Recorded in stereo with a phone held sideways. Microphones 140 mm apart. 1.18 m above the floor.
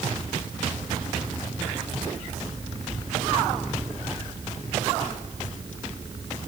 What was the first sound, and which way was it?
Only background noise.